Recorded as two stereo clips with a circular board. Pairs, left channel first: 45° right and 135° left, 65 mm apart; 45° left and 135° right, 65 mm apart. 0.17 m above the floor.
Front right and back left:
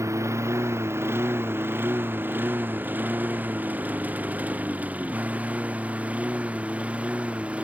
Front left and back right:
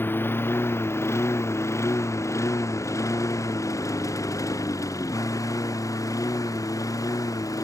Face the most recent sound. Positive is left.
turn(degrees=65)